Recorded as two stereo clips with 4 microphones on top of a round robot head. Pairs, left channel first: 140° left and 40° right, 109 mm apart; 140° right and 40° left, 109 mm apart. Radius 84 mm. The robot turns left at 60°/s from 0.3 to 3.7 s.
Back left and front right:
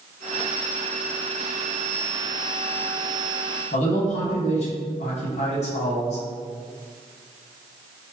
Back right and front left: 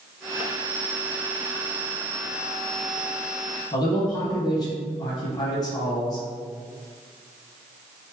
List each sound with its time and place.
3.7 s a man speaking: 165° left, 0.9 m